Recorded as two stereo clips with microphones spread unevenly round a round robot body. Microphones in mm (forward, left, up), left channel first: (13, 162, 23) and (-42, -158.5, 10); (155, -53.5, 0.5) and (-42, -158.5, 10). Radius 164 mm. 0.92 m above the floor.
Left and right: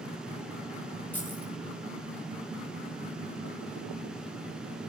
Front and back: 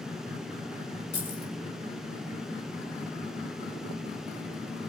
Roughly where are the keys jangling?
Ahead.